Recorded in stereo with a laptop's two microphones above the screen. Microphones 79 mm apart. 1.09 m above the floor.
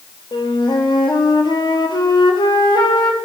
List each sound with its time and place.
0.3 s a flute: 65° left (ahead or behind), 1.0 m